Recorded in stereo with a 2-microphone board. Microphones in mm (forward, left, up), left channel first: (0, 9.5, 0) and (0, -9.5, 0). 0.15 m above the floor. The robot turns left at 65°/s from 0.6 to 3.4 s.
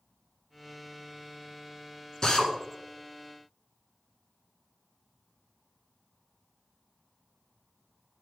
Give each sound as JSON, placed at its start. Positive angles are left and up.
{"t": 2.2, "sound": "a drill", "side_deg": 40, "distance_m": 1.6}